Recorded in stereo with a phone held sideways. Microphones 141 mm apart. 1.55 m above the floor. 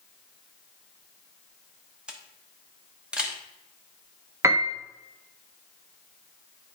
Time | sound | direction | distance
2.1 | a camera shutter | 5° right (ahead or behind) | 1.1 m
4.4 | a piano | 20° right (ahead or behind) | 0.7 m